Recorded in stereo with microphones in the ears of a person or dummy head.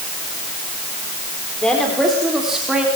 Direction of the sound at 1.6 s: 5° left (ahead or behind).